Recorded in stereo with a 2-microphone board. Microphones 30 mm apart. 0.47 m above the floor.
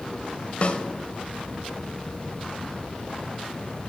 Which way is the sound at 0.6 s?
45° left (ahead or behind).